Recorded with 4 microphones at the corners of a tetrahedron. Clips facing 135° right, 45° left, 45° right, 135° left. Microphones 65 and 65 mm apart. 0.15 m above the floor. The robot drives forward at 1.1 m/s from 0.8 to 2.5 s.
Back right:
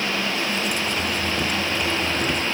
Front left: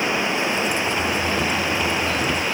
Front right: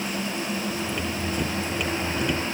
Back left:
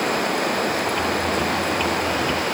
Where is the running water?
115° left.